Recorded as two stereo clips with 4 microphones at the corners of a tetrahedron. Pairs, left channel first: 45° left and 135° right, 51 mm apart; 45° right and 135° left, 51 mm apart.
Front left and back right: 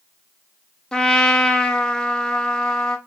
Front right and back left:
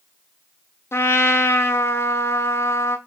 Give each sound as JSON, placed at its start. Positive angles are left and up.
{"t": 0.9, "sound": "a trumpet", "azimuth_deg": -30, "distance_m": 0.5}